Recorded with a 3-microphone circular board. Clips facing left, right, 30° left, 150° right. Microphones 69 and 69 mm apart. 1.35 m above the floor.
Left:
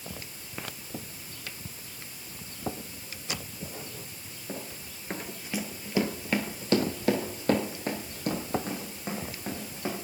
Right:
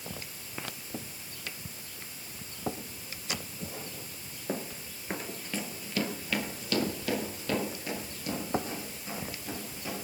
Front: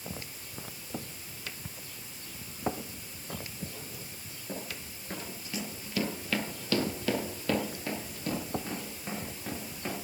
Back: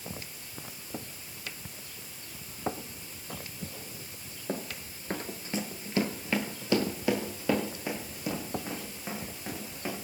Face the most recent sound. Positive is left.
turn(degrees=125)